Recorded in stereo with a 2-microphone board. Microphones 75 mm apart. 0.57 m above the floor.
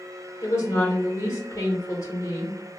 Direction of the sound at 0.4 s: 45° left (ahead or behind).